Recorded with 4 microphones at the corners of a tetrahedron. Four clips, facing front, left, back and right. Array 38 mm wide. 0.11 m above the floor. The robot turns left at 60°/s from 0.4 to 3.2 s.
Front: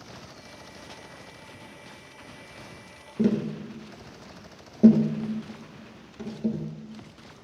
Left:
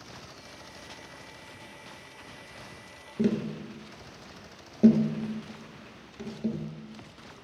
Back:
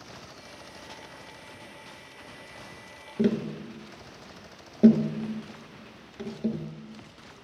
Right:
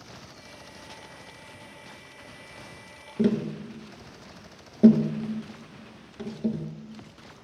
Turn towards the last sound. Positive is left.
turn(degrees=-155)